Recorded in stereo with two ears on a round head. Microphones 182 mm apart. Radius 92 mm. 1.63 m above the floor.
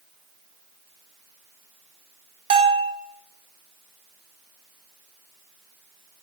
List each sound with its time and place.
2.5 s a bell: 25° right (ahead or behind), 1.5 m